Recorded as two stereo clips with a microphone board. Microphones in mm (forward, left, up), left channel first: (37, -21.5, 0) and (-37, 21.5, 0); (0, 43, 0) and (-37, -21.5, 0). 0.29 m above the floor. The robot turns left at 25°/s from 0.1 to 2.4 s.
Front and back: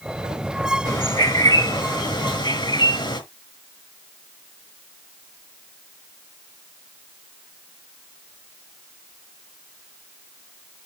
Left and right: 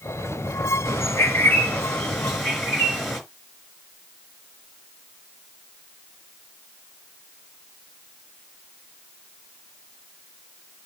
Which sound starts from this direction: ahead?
A bird, at 0.8 s.